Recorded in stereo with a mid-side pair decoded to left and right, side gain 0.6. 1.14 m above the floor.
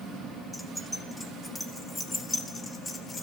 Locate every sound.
0.5 s keys jangling: straight ahead, 2.5 m; by 3.2 s 30° left, 3 m